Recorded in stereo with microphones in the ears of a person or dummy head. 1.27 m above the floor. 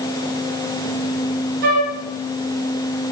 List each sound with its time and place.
1.6 s a flute: 55° right (ahead or behind), 4 m